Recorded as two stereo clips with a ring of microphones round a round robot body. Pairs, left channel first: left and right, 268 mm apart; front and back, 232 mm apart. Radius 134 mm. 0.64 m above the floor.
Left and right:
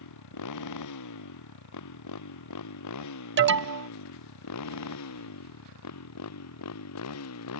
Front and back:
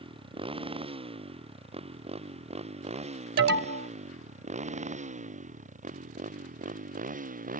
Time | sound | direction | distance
0.0 | a motorcycle | 110° left | ?
3.4 | an alarm | 135° right | ?